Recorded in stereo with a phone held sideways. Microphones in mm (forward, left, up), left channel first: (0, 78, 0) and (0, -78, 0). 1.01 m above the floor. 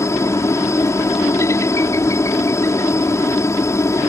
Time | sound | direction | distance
0.0 | a helicopter | 20° left (ahead or behind) | ?